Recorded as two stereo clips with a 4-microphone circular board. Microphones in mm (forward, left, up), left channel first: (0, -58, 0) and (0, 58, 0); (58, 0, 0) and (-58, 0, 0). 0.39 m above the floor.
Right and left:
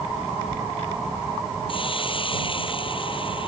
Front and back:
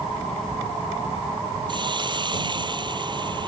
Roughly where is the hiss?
Behind right.